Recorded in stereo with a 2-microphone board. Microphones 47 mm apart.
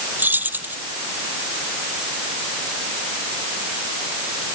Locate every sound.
0.2 s keys jangling: 40° right (ahead or behind)